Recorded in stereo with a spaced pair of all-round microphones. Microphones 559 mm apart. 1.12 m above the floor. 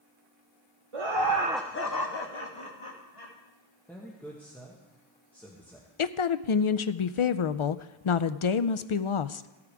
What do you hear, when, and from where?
0.9 s laughter: 60° right (ahead or behind), 1.1 m; by 3.3 s 65° left (ahead or behind), 3 m
3.9 s a man speaking: 5° left (ahead or behind), 1.5 m
6.0 s a woman speaking: 60° left (ahead or behind), 0.5 m